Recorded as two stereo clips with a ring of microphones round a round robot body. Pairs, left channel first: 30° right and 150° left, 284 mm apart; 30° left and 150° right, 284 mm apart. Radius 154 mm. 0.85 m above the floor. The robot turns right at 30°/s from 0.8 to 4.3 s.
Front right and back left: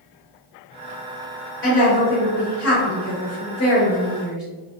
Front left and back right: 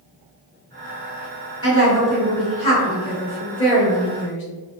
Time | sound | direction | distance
1.6 | a woman speaking | 15° right | 1.5 m